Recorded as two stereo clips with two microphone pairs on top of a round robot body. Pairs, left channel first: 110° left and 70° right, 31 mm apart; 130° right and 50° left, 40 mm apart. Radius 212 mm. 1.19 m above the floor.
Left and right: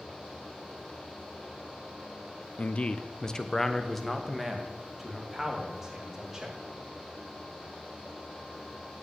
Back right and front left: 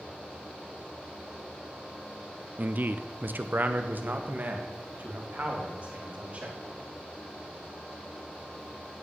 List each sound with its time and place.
2.6 s a man speaking: 75° left, 1.1 m; by 6.6 s 5° left, 4 m